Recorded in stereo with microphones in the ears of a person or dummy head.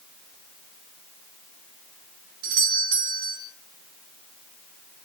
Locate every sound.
2.4 s a doorbell: 65° right (ahead or behind), 3.5 m